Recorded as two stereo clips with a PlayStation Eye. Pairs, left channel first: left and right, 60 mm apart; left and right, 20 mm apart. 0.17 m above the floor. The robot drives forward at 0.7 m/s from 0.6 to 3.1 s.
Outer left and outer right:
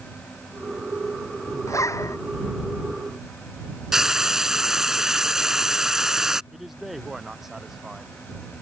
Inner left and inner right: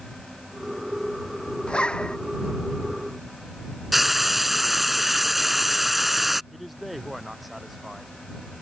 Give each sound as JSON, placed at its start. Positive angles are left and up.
{"t": 1.7, "sound": "a zipper", "side_deg": 65}
{"t": 3.9, "sound": "frying", "side_deg": -10}
{"t": 6.5, "sound": "a man speaking", "side_deg": -5}